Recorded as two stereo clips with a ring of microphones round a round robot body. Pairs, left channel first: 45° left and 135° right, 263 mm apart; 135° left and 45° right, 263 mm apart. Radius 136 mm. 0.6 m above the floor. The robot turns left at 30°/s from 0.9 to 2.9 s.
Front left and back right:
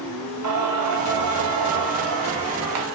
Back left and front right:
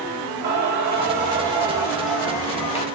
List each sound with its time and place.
0.4 s singing: 100° right, 0.9 m; by 2.9 s 160° right, 0.9 m